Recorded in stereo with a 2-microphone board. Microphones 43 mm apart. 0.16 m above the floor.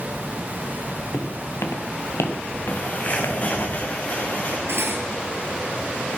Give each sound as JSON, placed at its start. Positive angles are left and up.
{"t": 1.1, "sound": "footsteps", "side_deg": 60, "distance_m": 2.5}
{"t": 2.7, "sound": "a bird", "side_deg": 40, "distance_m": 3.0}
{"t": 4.7, "sound": "cutlery clinking", "side_deg": -65, "distance_m": 1.9}